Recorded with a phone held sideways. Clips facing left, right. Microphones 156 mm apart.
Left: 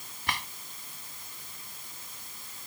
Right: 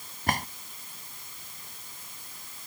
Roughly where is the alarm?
No alarm in this recording.